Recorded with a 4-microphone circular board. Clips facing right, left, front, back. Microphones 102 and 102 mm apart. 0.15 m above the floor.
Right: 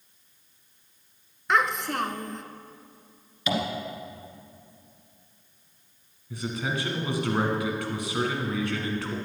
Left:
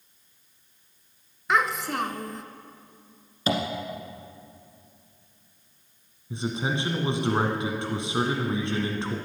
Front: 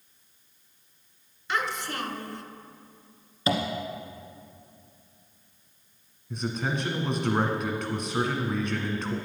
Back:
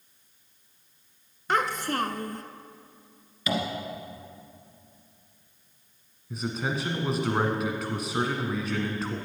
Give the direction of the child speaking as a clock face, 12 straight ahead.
6 o'clock.